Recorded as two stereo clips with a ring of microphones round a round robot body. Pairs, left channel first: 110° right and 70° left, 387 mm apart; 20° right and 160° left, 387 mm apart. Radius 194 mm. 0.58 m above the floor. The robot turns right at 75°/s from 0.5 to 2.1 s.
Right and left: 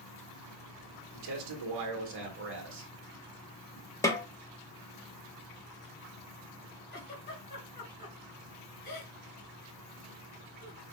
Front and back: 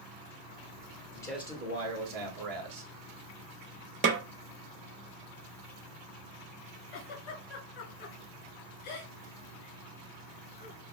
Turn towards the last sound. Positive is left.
turn(degrees=-45)